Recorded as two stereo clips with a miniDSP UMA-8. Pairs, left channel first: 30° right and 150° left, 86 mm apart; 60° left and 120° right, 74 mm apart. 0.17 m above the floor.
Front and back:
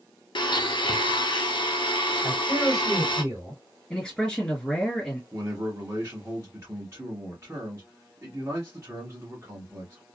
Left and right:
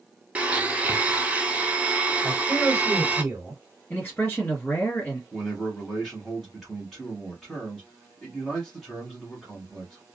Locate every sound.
0.3 s a blender: 50° right, 0.6 m
2.2 s a man speaking: 170° left, 2 m
3.9 s a man speaking: 40° left, 1.6 m
5.3 s a man speaking: 155° left, 1.2 m